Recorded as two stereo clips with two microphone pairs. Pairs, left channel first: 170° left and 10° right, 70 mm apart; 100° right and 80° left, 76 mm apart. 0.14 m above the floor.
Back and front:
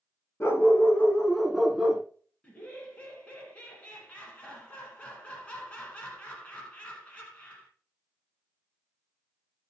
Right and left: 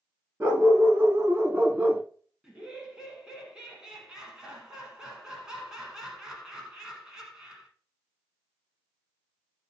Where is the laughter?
145° left, 1.1 m.